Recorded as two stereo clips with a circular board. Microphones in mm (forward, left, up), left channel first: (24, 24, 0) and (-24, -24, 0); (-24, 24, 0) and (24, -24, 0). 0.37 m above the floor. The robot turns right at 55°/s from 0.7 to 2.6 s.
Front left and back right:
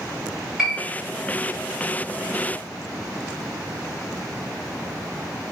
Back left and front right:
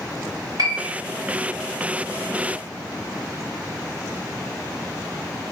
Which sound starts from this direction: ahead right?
A piano, at 0.6 s.